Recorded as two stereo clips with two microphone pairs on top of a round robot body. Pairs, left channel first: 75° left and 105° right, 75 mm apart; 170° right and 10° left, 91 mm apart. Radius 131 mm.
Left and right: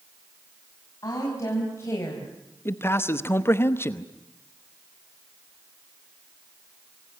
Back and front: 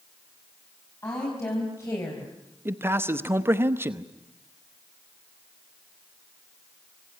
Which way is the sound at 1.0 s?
125° left.